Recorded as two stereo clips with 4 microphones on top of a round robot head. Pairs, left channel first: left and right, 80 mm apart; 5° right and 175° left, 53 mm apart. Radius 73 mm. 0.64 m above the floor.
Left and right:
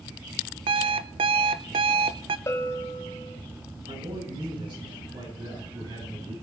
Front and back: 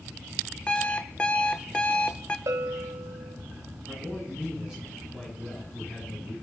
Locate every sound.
0.7 s an alarm clock: 80° right, 0.7 m
2.5 s a bell: 150° left, 1.4 m
3.9 s a man speaking: 105° right, 8 m